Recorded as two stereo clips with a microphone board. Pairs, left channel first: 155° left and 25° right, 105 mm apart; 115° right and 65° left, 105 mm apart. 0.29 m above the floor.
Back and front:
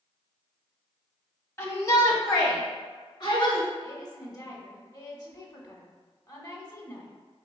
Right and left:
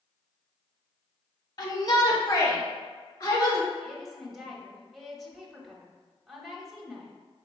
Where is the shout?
145° right, 1.4 m; by 3.7 s 165° right, 2.5 m.